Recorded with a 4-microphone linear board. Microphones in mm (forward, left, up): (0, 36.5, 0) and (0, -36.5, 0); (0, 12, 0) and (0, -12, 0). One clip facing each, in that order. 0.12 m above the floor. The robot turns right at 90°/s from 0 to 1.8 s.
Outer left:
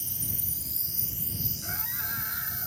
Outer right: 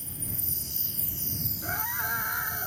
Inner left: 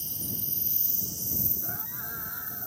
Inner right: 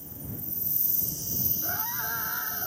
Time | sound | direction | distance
0.0 | an insect | 75° left | ?
1.6 | a scream | 25° right (ahead or behind) | ?